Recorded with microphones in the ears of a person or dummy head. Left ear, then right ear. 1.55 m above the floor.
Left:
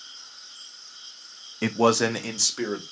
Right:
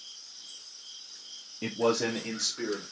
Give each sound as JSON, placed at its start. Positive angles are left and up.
{"t": 1.6, "sound": "a man speaking", "side_deg": 50, "distance_m": 0.5}